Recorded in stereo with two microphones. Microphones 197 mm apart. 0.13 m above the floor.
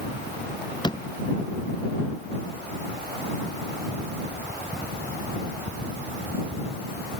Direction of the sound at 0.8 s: 20° left (ahead or behind).